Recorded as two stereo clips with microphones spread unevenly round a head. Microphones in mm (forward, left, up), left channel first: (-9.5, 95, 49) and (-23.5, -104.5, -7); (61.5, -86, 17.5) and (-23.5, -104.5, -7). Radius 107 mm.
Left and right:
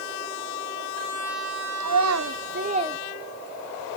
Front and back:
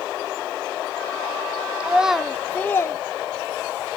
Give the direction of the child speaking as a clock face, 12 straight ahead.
3 o'clock.